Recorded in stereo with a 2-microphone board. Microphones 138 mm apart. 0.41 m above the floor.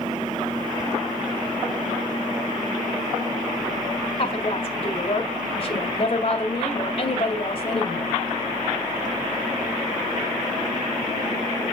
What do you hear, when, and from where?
4.2 s a woman speaking: 45° left (ahead or behind), 1.9 m